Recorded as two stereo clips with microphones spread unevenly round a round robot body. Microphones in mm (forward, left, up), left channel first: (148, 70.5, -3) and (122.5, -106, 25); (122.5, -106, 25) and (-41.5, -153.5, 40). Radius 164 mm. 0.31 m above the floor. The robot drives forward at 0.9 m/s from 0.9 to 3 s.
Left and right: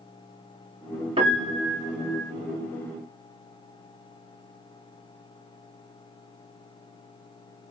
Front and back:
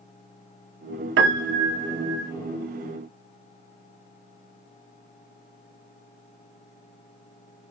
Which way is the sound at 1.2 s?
175° right.